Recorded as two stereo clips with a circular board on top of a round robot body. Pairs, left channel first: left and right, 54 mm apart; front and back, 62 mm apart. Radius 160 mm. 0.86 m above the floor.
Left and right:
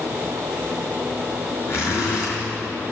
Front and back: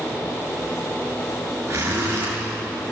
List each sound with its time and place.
1.7 s a zipper: 125° left, 8.5 m